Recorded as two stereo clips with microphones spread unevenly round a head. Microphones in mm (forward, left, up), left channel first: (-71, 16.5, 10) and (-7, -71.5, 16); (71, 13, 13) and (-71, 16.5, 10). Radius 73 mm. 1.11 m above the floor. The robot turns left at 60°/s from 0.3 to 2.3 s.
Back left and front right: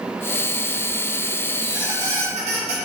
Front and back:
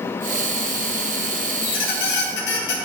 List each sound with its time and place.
1.6 s a squeak: 35° left, 1.4 m; by 2.8 s 10° right, 1.4 m